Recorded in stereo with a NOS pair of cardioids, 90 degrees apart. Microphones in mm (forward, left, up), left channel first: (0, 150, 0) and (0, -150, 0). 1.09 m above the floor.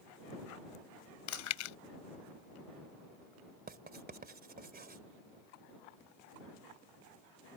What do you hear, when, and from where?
1.3 s chewing: 70° left
3.7 s writing: 30° right